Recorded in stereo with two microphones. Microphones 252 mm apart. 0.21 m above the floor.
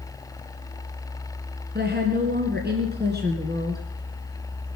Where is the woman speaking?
40° right (ahead or behind), 2 m.